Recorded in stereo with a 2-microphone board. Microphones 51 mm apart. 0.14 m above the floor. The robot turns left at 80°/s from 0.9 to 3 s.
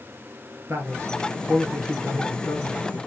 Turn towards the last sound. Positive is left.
turn(degrees=85)